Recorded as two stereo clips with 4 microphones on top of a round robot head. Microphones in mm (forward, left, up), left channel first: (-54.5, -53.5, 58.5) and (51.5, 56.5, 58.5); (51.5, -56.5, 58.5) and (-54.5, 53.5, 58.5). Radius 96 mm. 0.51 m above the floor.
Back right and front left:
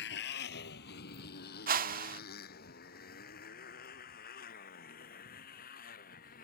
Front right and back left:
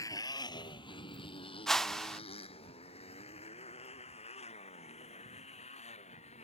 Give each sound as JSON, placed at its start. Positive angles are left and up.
{"t": 0.0, "sound": "a motorcycle", "azimuth_deg": -115}
{"t": 1.7, "sound": "a whoosh", "azimuth_deg": 40}